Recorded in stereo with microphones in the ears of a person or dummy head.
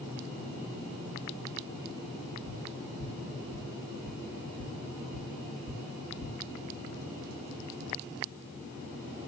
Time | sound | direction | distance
2.5 | tapping | 75° left (ahead or behind) | 3 m